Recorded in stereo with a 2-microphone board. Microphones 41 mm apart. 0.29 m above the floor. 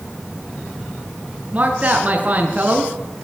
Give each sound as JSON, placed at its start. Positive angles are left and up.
{"t": 1.5, "sound": "a man speaking", "side_deg": -35, "distance_m": 4.0}